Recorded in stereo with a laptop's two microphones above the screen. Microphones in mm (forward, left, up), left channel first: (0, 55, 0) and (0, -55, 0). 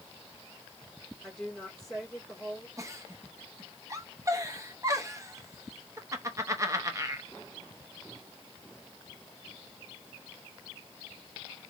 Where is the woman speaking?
5° left (ahead or behind), 3 m.